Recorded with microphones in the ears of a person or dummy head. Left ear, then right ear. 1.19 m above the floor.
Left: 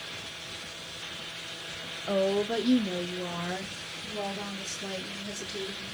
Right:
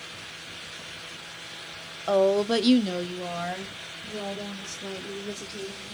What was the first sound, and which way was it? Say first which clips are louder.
A woman speaking: right 6 dB; 75° right (ahead or behind).